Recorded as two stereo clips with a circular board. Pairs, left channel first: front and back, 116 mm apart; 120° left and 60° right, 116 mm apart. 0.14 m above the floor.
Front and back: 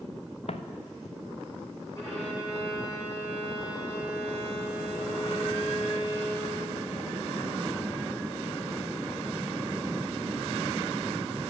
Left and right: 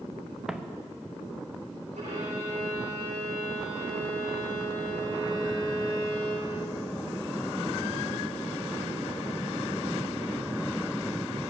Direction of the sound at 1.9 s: 65° right.